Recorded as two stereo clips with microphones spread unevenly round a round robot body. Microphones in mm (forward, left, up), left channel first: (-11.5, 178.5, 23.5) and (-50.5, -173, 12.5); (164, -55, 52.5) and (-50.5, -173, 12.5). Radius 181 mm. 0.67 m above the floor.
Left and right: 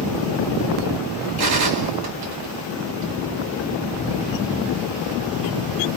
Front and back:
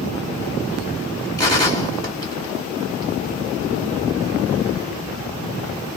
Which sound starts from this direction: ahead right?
A gunshot, at 1.4 s.